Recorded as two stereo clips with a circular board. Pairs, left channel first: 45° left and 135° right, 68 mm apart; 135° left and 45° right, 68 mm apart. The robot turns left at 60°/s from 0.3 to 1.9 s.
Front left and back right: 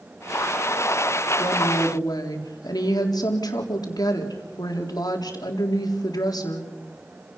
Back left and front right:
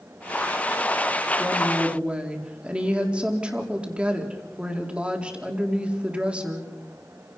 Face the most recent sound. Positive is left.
turn(degrees=30)